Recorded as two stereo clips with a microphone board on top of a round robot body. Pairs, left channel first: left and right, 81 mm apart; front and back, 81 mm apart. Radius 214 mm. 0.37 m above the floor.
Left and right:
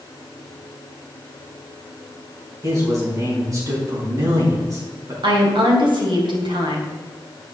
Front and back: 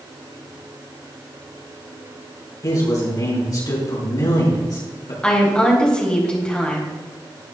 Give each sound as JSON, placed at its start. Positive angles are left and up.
{"t": 2.6, "sound": "a man speaking", "azimuth_deg": -40, "distance_m": 4.5}
{"t": 5.2, "sound": "a woman speaking", "azimuth_deg": -80, "distance_m": 3.0}